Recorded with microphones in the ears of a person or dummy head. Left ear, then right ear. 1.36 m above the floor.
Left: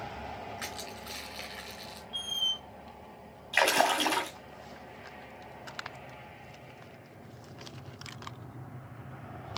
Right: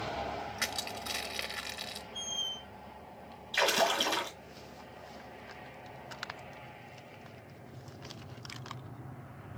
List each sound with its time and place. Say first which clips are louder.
0.6 s crushing: right 4 dB; 25° right (ahead or behind), 1.2 m
2.1 s a squeak: left 6 dB; 25° left (ahead or behind), 0.6 m
3.5 s a splash: left 3 dB; 40° left (ahead or behind), 1.9 m